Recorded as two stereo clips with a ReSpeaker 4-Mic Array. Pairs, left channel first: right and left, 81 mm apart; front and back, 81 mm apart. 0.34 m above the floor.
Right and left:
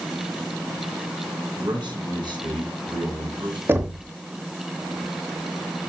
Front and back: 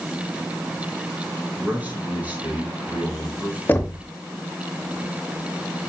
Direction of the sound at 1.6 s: 110° left.